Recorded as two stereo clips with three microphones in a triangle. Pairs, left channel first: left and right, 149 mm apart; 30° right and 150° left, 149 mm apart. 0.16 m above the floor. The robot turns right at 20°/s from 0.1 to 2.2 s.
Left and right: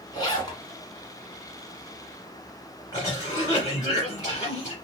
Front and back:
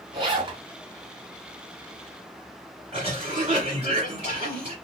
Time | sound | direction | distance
0.1 | a zipper | 125° left | 1.8 m
2.9 | a cough | 140° left | 1.9 m